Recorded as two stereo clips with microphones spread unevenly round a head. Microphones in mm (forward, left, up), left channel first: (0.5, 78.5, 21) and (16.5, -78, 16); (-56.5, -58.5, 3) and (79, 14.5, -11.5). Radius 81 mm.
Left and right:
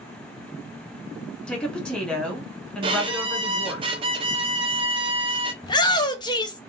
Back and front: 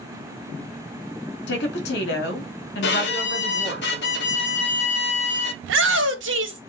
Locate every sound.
1.5 s a woman speaking: straight behind, 2.5 m
2.8 s a violin: 145° right, 1.0 m
5.6 s a shout: 30° left, 1.4 m